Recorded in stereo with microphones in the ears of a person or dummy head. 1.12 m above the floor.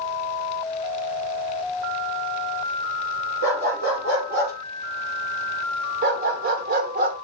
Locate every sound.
3.4 s a dog barking: 70° right (ahead or behind), 6.5 m
6.0 s a dog barking: 60° right (ahead or behind), 1.2 m